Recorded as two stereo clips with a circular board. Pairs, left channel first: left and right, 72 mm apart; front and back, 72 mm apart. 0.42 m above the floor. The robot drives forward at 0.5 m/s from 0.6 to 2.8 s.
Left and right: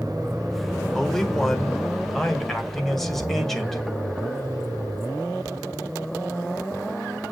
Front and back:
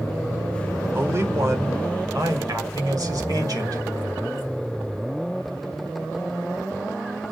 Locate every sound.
0.9 s a man speaking: 170° left, 1.1 m; by 3.8 s 175° left, 1.8 m